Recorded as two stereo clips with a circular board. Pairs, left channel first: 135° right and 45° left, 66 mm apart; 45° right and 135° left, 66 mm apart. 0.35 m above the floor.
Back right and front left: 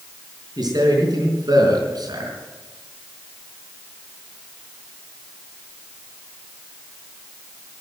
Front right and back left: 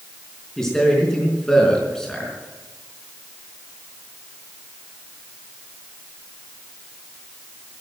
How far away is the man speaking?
About 4.5 m.